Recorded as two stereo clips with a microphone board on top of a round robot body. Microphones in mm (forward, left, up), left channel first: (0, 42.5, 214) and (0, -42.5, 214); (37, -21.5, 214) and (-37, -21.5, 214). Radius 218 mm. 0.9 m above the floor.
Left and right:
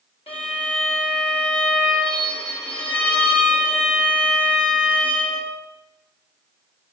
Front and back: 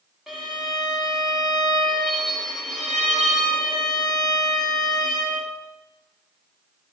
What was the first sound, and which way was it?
A violin, 90° left.